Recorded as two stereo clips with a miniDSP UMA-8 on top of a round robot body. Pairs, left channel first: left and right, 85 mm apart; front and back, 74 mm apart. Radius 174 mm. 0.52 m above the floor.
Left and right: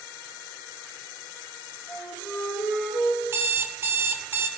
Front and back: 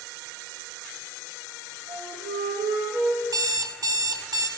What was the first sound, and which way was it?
A flute, 175° left.